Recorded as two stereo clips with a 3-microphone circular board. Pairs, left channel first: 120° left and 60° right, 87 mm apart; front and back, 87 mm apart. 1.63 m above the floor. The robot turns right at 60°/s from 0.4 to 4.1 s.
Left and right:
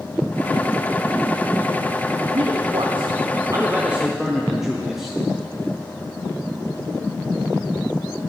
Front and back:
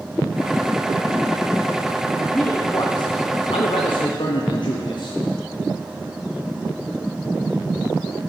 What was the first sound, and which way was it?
A man speaking, 80° right.